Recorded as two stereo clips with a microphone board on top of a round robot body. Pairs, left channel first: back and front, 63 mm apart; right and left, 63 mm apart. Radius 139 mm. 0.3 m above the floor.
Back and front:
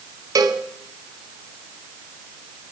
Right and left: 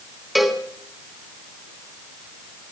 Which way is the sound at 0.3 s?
5° left.